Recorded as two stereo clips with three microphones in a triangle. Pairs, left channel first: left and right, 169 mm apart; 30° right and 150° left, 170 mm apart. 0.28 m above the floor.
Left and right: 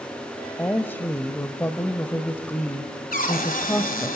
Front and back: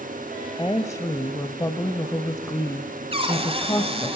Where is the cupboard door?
100° left, 1.7 m.